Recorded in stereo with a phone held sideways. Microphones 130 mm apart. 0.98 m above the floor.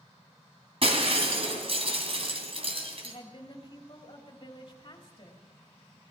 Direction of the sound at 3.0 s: 45° left (ahead or behind).